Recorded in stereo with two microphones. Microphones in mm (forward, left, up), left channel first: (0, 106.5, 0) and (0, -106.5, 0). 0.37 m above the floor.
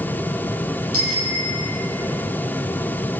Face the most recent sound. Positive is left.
turn(degrees=-85)